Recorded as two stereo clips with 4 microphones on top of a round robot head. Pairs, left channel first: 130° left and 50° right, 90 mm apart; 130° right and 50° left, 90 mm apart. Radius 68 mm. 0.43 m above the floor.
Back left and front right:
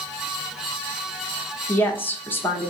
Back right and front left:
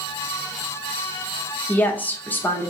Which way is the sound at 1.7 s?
175° left.